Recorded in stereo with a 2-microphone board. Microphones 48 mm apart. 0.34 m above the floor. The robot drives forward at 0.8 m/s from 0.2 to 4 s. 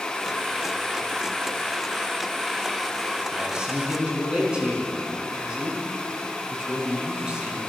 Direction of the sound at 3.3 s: 15° right (ahead or behind).